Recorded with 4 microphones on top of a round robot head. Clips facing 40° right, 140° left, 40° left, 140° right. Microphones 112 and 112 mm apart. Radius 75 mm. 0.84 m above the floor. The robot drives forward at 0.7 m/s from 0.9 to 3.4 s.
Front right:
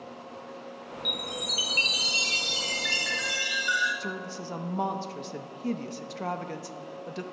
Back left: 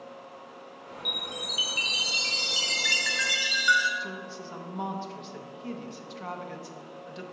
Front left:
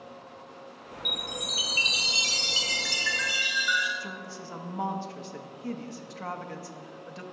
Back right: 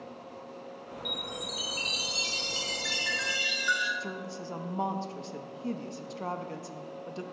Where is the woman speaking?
80° right, 0.5 m.